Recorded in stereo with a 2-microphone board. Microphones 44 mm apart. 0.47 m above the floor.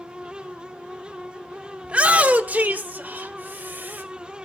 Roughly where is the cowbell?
I don't hear a cowbell.